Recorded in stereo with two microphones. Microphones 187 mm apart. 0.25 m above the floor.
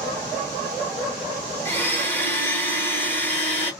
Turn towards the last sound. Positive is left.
turn(degrees=15)  # may be behind; listen again after turning